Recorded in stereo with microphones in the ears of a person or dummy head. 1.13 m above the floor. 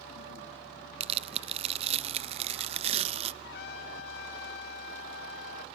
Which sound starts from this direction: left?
A trumpet, at 3.4 s.